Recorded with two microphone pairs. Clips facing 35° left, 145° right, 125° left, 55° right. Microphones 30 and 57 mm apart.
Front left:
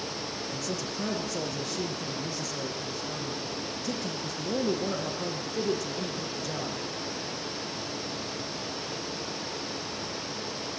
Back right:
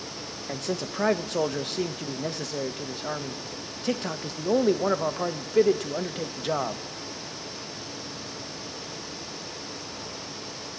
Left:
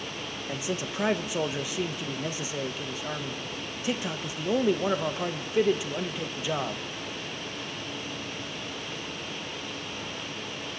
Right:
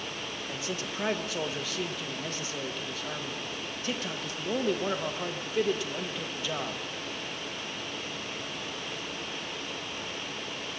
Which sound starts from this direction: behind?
A man speaking, at 0.5 s.